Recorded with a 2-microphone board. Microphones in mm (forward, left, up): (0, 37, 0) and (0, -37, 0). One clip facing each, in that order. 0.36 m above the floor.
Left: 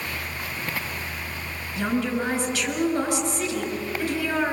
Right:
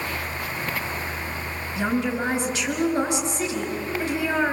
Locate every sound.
1.8 s a woman speaking: 15° right (ahead or behind), 5.5 m